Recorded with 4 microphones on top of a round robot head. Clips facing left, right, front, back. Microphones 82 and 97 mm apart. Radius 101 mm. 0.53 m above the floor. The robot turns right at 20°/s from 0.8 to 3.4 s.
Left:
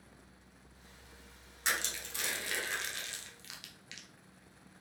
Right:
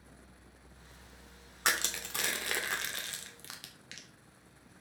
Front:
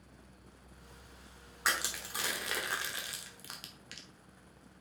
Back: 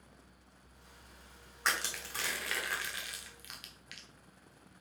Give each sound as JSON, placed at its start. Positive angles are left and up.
{"t": 1.6, "sound": "crushing", "azimuth_deg": -85, "distance_m": 1.3}